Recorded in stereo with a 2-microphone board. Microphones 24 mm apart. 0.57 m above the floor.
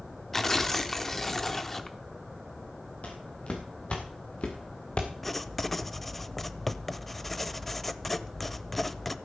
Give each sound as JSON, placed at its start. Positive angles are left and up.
{"t": 0.3, "sound": "tearing paper", "side_deg": 10, "distance_m": 1.0}
{"t": 3.0, "sound": "footsteps", "side_deg": 60, "distance_m": 5.5}
{"t": 5.2, "sound": "writing", "side_deg": 0, "distance_m": 0.6}